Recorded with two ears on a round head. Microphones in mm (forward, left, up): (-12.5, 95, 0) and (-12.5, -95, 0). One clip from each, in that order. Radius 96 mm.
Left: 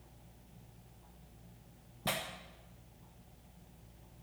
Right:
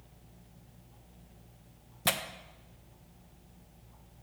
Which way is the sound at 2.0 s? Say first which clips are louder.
Right 6 dB; 50° right (ahead or behind).